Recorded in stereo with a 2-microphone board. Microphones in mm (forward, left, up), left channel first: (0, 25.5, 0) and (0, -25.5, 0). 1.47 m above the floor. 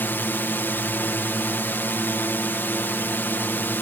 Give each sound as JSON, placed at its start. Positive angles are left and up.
{"t": 0.0, "sound": "a drone", "side_deg": 45}